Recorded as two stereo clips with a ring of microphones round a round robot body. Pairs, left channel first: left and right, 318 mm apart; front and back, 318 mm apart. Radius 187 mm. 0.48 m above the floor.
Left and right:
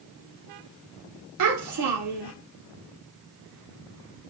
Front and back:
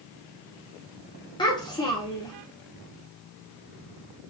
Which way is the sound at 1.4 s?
75° right.